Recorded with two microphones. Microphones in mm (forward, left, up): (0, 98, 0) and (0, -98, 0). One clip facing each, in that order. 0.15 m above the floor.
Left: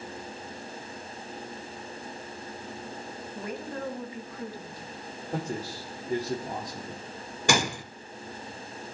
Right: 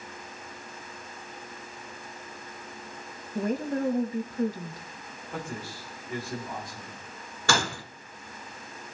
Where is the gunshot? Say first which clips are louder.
Left 2 dB; 15° left (ahead or behind), 0.9 m.